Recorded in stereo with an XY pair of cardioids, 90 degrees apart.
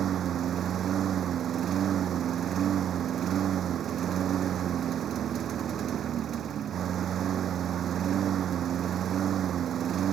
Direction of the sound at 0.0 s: 65° right.